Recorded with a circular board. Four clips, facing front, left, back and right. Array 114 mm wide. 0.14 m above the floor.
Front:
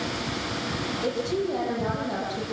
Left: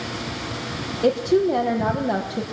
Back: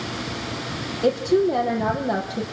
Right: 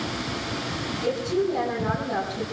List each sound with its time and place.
1.0 s a woman speaking: 120° left, 5.5 m